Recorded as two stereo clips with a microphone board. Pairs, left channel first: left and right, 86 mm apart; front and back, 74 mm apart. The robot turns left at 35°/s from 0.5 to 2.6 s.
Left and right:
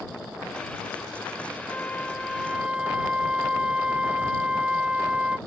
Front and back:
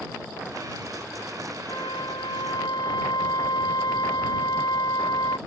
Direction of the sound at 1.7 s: 25° left.